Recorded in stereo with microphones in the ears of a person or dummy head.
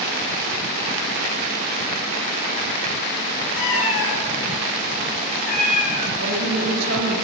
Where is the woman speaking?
75° right (ahead or behind), 3 m.